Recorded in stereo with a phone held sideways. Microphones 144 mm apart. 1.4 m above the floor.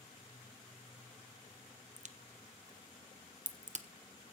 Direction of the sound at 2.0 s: 55° right (ahead or behind).